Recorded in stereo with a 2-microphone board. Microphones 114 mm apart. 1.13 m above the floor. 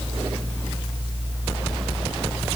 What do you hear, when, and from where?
Only background noise.